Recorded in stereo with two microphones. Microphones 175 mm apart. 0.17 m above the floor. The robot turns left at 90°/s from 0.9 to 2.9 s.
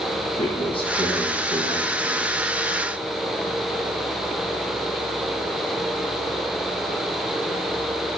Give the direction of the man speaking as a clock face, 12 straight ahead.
11 o'clock.